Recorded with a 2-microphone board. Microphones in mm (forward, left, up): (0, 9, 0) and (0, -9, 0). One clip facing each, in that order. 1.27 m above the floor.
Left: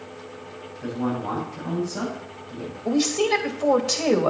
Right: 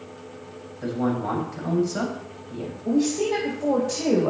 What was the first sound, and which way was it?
A man speaking, 35° right (ahead or behind).